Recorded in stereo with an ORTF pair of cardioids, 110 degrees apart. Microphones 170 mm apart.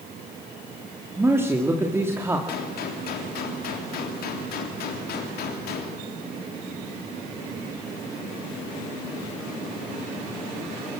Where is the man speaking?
15° right, 2.5 m.